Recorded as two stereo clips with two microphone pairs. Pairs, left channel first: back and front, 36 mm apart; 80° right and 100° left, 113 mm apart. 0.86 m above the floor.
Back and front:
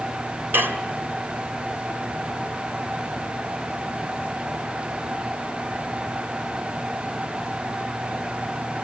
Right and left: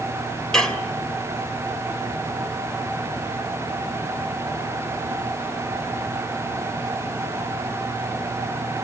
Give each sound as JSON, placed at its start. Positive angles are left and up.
{"t": 0.5, "sound": "dishes clattering", "azimuth_deg": 5, "distance_m": 2.5}